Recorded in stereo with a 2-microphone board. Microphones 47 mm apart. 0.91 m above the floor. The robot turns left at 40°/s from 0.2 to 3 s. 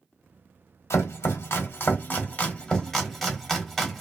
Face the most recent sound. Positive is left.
turn(degrees=5)  # may be behind; listen again after turning